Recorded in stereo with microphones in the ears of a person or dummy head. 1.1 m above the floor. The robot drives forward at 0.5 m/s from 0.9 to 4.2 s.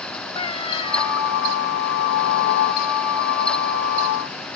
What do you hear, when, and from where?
0.3 s a cat meowing: 30° left (ahead or behind)